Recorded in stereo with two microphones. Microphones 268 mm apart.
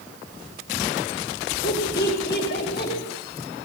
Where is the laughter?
40° left (ahead or behind), 5.5 m.